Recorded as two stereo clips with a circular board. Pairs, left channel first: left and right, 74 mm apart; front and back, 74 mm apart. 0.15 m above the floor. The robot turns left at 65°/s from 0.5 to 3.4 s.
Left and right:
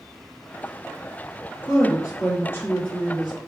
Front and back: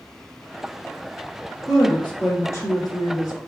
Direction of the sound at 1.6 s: 95° left.